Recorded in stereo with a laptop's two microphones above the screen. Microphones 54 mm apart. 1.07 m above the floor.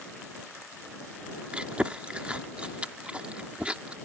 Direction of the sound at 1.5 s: 20° right (ahead or behind).